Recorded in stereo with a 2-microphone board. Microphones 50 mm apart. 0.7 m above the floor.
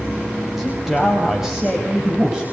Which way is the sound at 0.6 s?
5° right (ahead or behind).